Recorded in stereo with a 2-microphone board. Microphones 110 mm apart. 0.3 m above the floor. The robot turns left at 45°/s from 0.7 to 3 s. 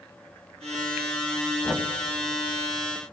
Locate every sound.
1.6 s knocking: 25° left (ahead or behind), 1.5 m; by 1.9 s 15° left (ahead or behind), 1.5 m